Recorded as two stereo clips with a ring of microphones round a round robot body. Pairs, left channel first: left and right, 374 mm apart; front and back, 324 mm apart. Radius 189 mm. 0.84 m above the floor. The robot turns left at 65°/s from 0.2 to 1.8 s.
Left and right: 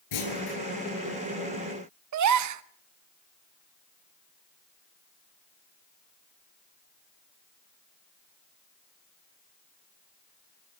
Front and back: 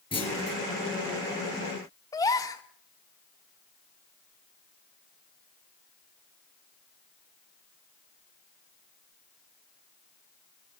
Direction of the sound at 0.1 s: 75° left.